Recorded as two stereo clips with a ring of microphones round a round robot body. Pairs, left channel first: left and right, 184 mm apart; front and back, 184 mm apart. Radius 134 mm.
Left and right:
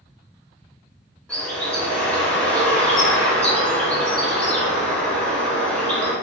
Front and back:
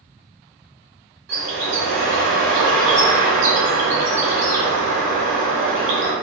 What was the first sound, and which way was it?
A bird, 175° left.